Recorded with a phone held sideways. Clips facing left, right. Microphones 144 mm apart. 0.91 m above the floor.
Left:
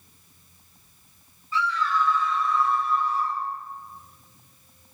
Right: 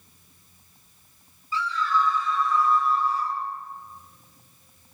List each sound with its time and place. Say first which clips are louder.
1.5 s a scream: even; 80° left, 5.5 m; by 3.4 s 70° left (ahead or behind), 6 m